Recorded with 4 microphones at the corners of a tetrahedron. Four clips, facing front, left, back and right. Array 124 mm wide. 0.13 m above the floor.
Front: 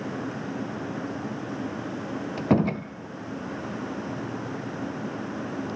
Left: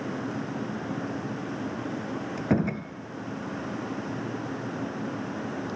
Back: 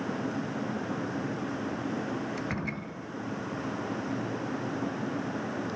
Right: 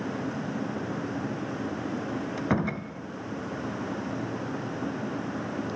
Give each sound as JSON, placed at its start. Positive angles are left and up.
{"t": 2.4, "sound": "a door slam", "azimuth_deg": 10, "distance_m": 2.0}